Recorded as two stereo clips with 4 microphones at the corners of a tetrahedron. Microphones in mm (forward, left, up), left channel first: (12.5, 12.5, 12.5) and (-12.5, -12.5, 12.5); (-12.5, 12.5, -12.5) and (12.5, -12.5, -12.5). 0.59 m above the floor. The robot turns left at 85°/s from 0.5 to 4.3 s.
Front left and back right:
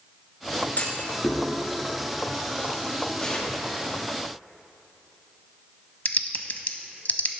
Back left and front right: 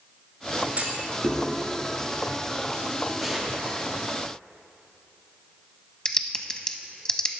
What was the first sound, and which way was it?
A clunk, 10° left.